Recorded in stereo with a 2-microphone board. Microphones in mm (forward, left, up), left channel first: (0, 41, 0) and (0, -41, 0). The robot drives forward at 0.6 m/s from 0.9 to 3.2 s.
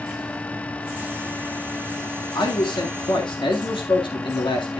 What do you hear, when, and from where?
2.4 s a man speaking: 75° left (ahead or behind), 2.0 m; by 4.8 s 80° left, 1.9 m